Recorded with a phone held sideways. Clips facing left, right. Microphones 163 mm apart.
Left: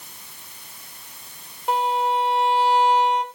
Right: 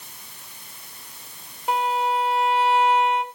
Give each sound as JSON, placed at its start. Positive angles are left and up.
{"t": 1.7, "sound": "a violin", "side_deg": 0, "distance_m": 1.2}